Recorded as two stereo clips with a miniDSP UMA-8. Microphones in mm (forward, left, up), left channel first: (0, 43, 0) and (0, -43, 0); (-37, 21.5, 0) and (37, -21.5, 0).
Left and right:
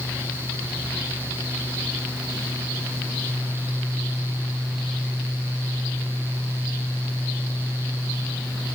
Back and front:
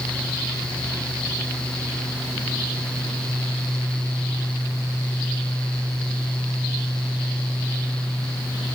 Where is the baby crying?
I don't hear a baby crying.